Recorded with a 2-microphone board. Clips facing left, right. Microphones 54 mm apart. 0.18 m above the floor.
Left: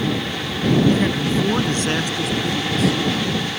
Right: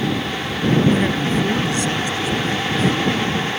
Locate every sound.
0.9 s a man speaking: 15° right (ahead or behind); by 3.0 s 70° left (ahead or behind)